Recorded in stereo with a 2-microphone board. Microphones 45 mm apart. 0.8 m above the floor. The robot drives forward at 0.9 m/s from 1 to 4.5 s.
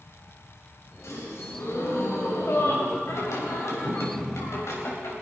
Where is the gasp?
80° left, 4 m; by 3.0 s 60° left (ahead or behind), 4.5 m.